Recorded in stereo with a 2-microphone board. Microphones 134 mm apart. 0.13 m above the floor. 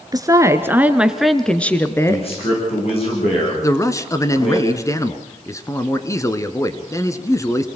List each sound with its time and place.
0.1 s a woman speaking: 30° right (ahead or behind), 1.7 m; by 2.2 s 25° left (ahead or behind), 1.6 m
2.1 s a man speaking: 45° left (ahead or behind), 9 m
3.6 s a man speaking: 25° left (ahead or behind), 1.2 m